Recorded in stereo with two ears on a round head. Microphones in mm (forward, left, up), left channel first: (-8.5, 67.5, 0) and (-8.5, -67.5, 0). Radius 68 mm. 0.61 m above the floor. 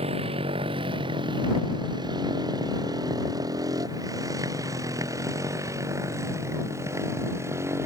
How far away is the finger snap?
I don't hear a finger snap.